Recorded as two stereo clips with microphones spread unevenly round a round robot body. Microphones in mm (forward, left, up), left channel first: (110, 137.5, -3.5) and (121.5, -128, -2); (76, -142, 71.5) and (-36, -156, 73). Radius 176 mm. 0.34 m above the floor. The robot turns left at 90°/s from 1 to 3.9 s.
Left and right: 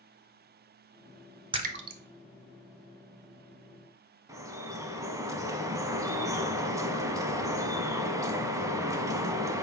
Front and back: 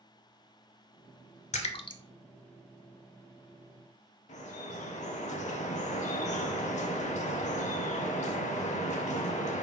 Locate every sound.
1.5 s a splash: 15° right, 0.6 m; by 2.0 s 55° right, 0.6 m
4.3 s dripping: 5° right, 0.6 m